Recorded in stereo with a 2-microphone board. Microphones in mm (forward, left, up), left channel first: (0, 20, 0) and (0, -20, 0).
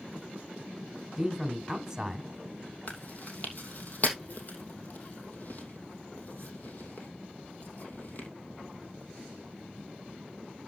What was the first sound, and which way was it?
A man speaking, 10° right (ahead or behind).